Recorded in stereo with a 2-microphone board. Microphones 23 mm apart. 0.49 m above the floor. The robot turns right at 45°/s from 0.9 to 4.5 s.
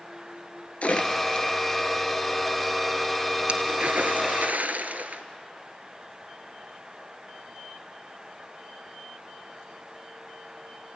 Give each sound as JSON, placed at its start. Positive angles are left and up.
{"t": 0.8, "sound": "a splash", "side_deg": 65, "distance_m": 1.4}